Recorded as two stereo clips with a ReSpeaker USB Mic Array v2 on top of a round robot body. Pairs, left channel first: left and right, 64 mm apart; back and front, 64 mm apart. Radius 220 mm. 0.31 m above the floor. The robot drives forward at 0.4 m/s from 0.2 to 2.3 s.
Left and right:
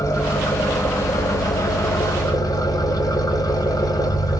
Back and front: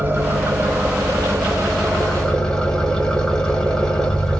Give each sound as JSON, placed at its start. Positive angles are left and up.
{"t": 0.0, "sound": "an engine running", "azimuth_deg": 60, "distance_m": 1.3}